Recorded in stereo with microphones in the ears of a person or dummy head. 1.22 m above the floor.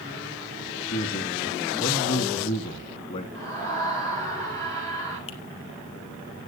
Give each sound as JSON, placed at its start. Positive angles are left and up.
{"t": 0.9, "sound": "a man speaking", "side_deg": 40, "distance_m": 2.0}
{"t": 3.3, "sound": "a scream", "side_deg": 10, "distance_m": 5.0}
{"t": 5.3, "sound": "a finger snap", "side_deg": 35, "distance_m": 2.0}